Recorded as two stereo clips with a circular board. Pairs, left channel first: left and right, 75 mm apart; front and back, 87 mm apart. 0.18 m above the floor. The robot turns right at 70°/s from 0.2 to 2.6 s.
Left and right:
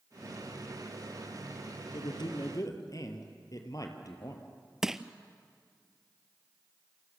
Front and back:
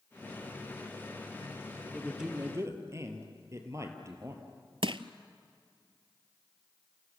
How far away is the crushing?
About 0.7 m.